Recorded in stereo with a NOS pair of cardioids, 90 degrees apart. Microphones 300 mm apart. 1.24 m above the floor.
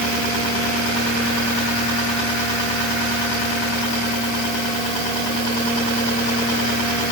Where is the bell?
No bell in this recording.